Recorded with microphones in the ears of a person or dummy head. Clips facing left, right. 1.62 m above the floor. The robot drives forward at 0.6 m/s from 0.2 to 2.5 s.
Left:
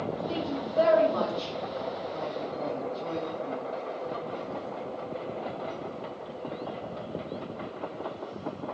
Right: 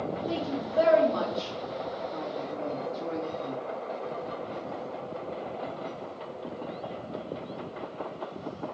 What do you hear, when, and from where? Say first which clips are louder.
0.3 s a woman speaking: even; 40° right (ahead or behind), 3 m; by 3.6 s 30° right (ahead or behind), 4 m